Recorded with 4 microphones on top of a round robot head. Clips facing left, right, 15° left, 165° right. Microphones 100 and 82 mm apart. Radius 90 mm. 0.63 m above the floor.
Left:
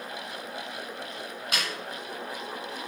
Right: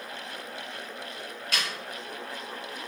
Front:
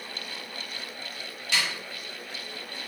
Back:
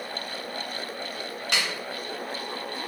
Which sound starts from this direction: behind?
A snare drum, at 1.5 s.